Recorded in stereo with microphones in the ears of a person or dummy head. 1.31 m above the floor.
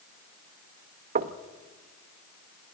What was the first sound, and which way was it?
Knocking, 40° right (ahead or behind).